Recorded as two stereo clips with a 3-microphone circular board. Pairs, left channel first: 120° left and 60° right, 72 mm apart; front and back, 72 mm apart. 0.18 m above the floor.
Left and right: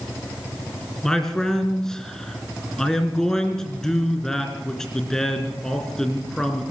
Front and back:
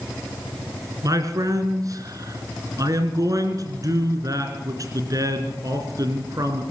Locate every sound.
1.0 s a man speaking: 160° right, 2.5 m